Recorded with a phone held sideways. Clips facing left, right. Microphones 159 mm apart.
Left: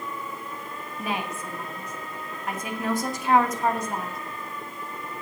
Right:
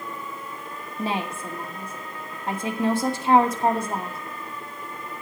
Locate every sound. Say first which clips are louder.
1.0 s a woman speaking: right 3 dB; 30° right (ahead or behind), 2.5 m